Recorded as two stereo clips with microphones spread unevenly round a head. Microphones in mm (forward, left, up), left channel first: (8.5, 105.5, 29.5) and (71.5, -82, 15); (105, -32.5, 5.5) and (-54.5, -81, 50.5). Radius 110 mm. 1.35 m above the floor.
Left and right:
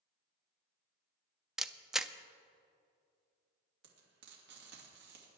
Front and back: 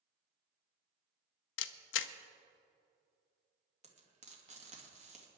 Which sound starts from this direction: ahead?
A camera shutter, at 1.6 s.